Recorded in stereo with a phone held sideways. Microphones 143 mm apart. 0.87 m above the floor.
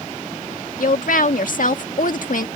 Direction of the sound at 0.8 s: 70° left (ahead or behind).